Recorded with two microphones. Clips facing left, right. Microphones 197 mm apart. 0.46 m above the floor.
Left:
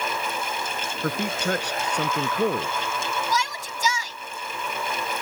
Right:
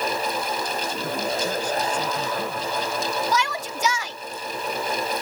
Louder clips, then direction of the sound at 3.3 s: Right 3 dB; 70° right (ahead or behind).